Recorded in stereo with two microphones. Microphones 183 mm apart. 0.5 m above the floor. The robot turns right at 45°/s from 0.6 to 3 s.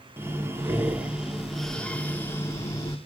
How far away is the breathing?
About 1.2 m.